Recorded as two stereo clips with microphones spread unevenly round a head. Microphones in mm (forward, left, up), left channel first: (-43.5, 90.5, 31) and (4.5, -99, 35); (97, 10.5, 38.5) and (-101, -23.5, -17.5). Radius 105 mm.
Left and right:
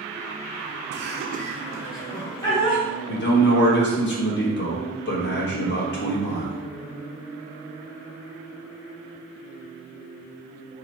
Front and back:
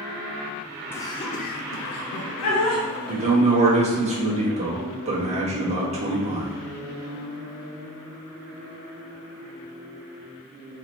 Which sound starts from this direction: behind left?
A man speaking, at 3.1 s.